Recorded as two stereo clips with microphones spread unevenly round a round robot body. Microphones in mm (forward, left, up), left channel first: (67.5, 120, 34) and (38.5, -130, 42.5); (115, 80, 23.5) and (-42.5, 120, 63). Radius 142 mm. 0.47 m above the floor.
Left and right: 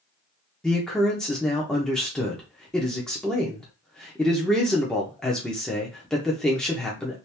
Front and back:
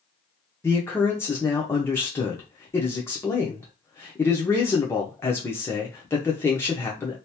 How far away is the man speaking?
About 0.9 m.